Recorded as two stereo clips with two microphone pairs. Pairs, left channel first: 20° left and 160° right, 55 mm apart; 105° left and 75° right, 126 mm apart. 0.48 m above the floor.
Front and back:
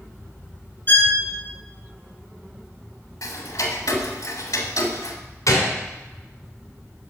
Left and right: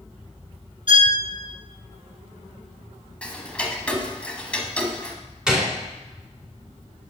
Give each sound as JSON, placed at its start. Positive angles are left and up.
{"t": 0.9, "sound": "a violin", "azimuth_deg": -30, "distance_m": 1.6}
{"t": 3.2, "sound": "ticking", "azimuth_deg": 25, "distance_m": 1.0}
{"t": 5.5, "sound": "a gunshot", "azimuth_deg": 10, "distance_m": 2.0}